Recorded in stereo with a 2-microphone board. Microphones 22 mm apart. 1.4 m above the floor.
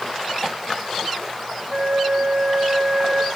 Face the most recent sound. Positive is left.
turn(degrees=-80)